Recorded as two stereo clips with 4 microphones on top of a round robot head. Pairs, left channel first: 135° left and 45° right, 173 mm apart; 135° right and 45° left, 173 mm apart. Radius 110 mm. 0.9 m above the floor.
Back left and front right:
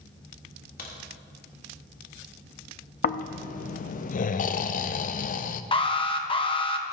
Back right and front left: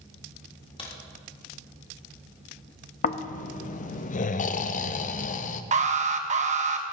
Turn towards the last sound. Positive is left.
turn(degrees=80)